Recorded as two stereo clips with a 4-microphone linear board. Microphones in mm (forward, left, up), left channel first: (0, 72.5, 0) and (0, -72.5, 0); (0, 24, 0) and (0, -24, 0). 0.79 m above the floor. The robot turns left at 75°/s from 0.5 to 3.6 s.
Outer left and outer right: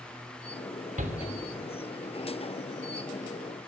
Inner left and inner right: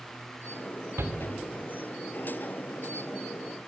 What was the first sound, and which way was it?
A shout, 70° right (ahead or behind).